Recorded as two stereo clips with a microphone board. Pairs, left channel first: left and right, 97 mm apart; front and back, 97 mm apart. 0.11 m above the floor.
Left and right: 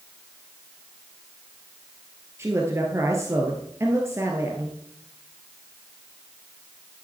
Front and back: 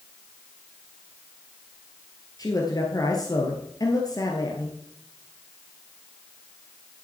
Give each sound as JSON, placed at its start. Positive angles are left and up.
{"t": 2.4, "sound": "a man speaking", "azimuth_deg": -35, "distance_m": 1.9}